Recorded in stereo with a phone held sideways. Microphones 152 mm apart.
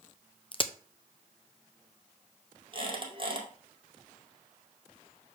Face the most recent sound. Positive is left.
turn(degrees=-35)  # may be behind; listen again after turning